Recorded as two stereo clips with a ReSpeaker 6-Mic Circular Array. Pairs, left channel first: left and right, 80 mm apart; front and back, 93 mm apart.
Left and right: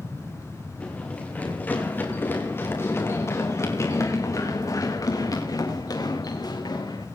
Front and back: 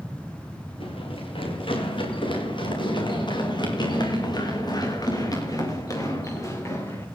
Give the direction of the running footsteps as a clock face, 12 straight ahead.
11 o'clock.